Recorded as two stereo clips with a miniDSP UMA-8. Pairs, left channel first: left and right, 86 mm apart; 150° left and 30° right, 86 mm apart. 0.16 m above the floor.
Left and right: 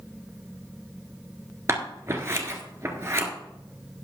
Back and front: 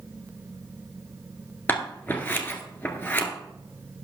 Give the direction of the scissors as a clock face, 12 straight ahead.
5 o'clock.